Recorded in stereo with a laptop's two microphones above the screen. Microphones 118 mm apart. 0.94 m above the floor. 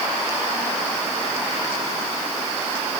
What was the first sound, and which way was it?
Only background noise.